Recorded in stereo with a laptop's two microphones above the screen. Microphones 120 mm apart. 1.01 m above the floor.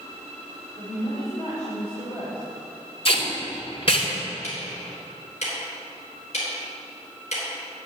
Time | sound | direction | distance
0.8 | a woman speaking | 65° left (ahead or behind) | 3.5 m
3.0 | tape being pulled | 50° left (ahead or behind) | 2.5 m
4.4 | ticking | 70° left (ahead or behind) | 3.5 m